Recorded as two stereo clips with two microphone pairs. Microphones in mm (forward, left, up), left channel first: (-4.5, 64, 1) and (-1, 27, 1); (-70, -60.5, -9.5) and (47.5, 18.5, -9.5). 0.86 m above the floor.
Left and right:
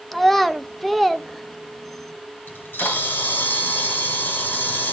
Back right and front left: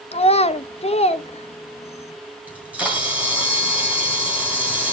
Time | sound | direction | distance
0.1 | a child speaking | 175° left | 0.5 m
2.5 | a camera shutter | 115° left | 2 m